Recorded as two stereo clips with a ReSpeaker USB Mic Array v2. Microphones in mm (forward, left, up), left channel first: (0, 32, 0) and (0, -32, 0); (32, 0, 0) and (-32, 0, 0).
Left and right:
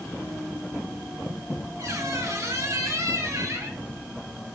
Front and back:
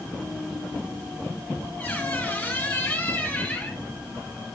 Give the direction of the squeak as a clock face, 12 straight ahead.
2 o'clock.